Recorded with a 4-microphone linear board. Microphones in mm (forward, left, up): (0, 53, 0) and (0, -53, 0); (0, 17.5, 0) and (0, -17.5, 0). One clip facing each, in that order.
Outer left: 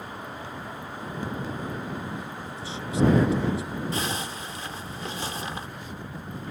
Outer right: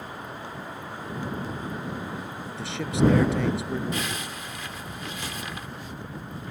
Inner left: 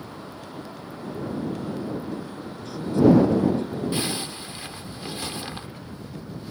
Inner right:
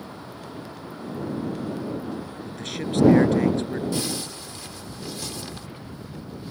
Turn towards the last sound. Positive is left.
turn(degrees=30)  # may be behind; listen again after turning